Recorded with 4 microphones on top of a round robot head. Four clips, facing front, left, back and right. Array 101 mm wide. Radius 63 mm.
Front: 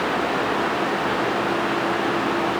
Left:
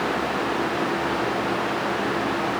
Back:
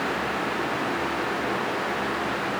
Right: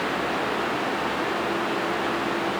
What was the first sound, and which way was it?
Only background noise.